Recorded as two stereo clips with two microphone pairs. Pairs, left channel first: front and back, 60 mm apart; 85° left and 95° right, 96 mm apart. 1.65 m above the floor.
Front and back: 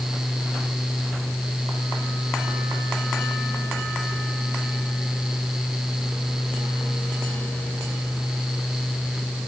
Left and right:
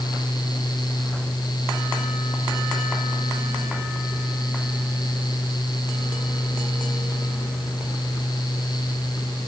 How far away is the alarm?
No alarm in this recording.